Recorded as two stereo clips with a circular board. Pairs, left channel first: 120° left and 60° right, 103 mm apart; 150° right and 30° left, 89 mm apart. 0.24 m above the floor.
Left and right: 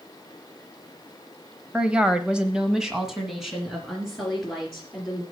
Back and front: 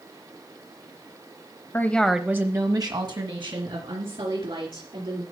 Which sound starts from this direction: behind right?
A woman speaking, at 1.7 s.